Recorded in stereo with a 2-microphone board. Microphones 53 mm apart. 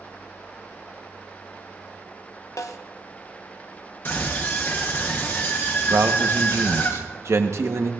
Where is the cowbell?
No cowbell in this recording.